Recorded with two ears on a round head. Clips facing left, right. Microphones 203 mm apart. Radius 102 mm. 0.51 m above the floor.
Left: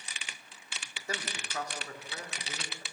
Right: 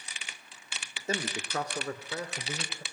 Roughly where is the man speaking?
Right.